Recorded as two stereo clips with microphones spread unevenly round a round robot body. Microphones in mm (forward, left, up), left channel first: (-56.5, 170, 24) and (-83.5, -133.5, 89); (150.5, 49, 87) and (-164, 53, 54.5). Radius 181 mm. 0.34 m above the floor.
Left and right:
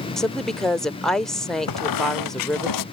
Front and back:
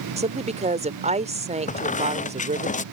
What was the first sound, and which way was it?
A woman speaking, 150° left.